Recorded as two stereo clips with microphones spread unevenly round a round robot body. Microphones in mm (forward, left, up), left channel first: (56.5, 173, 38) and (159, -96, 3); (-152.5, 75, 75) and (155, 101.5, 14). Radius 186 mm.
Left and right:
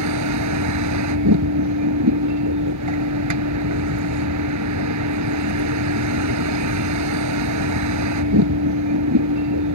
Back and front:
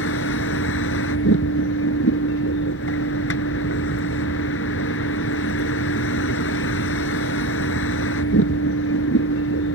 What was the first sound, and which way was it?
A vehicle, 115° right.